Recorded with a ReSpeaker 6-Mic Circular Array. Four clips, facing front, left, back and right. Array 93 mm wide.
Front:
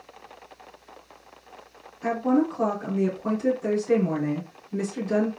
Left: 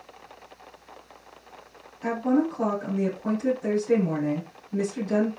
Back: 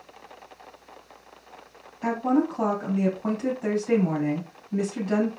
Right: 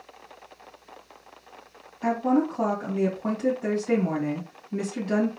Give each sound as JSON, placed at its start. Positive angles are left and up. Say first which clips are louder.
{"t": 2.0, "sound": "a woman speaking", "louder": "right 1 dB, front 1 dB", "azimuth_deg": -140, "distance_m": 2.0}